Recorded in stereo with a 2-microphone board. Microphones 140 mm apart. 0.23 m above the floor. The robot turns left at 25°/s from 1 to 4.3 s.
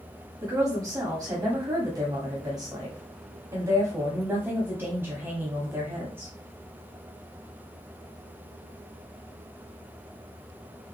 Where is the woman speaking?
25° right (ahead or behind), 1.2 m; by 6.3 s 15° right (ahead or behind), 1.2 m.